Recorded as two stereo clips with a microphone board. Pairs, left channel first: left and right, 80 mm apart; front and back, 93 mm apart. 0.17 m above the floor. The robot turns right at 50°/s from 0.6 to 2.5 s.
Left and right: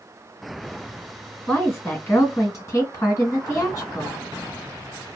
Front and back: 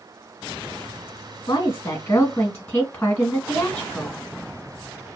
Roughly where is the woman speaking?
Ahead.